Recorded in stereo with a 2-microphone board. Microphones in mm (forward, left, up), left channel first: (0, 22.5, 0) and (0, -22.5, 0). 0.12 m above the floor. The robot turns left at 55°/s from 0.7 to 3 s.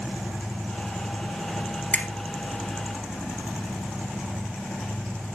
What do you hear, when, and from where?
1.9 s a finger snap: 35° left (ahead or behind), 2 m; by 2.1 s 30° left (ahead or behind), 2 m